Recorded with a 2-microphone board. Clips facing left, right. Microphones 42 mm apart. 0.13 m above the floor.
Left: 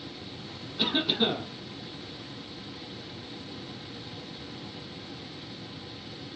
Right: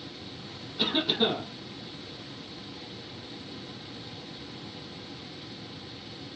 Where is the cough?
Centre (ahead or behind), 5 m.